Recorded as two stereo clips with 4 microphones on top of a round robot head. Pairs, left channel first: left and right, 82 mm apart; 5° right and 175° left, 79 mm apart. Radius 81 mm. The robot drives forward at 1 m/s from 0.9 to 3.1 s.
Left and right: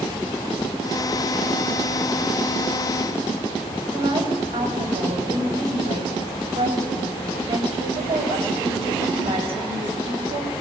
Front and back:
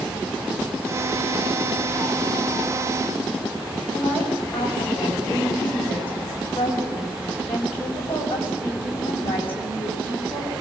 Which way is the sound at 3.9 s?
80° right.